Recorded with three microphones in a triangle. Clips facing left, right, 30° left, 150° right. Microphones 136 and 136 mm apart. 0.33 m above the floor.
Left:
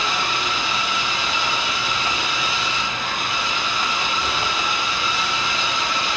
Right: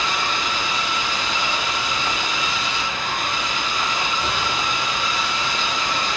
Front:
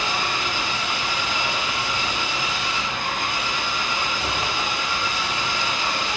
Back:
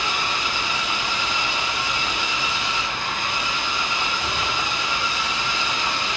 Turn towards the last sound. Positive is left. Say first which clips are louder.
# even, front 1 dB
turn(degrees=5)